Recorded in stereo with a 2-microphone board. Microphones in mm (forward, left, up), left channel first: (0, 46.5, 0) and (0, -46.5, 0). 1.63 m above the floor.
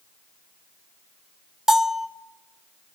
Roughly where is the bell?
Centre.